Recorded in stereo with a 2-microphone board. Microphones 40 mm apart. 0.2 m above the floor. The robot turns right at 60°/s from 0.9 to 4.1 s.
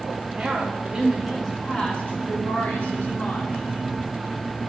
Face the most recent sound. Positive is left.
turn(degrees=165)